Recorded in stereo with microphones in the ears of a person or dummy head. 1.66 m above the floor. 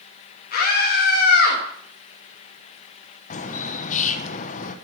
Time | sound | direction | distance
0.5 | a scream | 55° left (ahead or behind) | 2.5 m
3.3 | a bird | 45° left (ahead or behind) | 1.2 m